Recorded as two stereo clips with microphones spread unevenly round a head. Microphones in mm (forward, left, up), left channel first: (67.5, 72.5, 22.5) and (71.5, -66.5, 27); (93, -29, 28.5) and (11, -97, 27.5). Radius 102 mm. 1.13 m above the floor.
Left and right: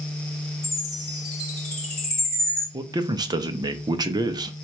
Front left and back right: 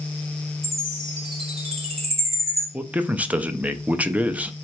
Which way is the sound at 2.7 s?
80° right.